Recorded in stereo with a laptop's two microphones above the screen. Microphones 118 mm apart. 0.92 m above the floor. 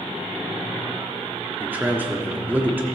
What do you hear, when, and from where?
1.6 s a man speaking: 15° right (ahead or behind), 1.5 m